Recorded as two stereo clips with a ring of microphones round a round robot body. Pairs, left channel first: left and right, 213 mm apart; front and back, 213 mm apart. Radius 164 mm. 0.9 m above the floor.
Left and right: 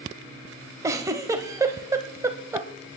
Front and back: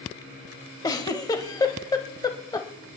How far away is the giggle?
About 0.7 m.